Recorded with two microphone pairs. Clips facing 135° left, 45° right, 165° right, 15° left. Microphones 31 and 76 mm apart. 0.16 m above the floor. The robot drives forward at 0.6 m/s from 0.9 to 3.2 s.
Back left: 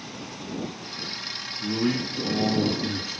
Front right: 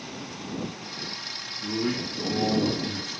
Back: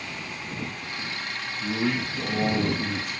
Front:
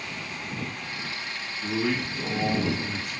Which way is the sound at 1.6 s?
155° left.